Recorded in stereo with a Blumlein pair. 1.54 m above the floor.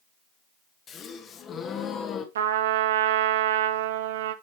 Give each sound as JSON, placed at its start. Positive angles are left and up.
{"t": 0.9, "sound": "a gasp", "azimuth_deg": 25, "distance_m": 1.4}
{"t": 2.4, "sound": "a trumpet", "azimuth_deg": -60, "distance_m": 1.1}